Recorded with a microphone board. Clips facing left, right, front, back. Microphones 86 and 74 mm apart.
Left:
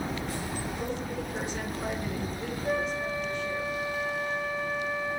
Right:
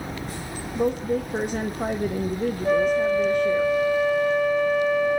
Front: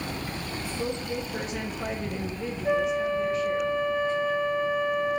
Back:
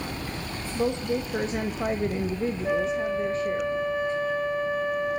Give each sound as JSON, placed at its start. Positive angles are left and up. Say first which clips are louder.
{"t": 0.8, "sound": "a woman speaking", "louder": "right 10 dB, back 6 dB", "azimuth_deg": -125, "distance_m": 0.9}
{"t": 2.6, "sound": "a flute", "louder": "right 10 dB, front 3 dB", "azimuth_deg": -115, "distance_m": 3.5}